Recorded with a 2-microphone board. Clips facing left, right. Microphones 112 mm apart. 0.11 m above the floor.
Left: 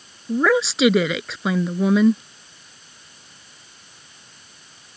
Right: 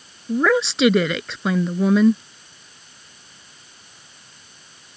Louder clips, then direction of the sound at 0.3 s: Even; centre (ahead or behind).